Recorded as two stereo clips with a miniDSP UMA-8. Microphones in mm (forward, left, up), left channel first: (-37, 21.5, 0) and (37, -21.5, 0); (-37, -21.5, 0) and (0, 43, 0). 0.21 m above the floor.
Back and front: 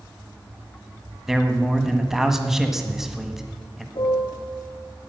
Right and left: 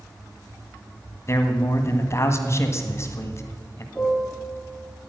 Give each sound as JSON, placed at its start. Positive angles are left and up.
{"t": 1.3, "sound": "a man speaking", "azimuth_deg": -115, "distance_m": 1.5}
{"t": 4.0, "sound": "a piano", "azimuth_deg": 155, "distance_m": 3.5}